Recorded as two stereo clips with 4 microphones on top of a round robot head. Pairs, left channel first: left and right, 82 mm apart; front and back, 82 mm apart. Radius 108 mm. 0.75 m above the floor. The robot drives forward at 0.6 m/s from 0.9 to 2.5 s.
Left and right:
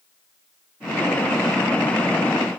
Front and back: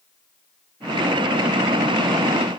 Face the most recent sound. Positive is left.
No sound to turn to.